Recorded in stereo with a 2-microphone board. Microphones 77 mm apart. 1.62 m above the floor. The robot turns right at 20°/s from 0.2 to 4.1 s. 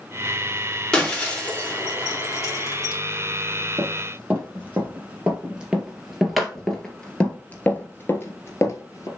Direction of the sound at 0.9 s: 10° left (ahead or behind).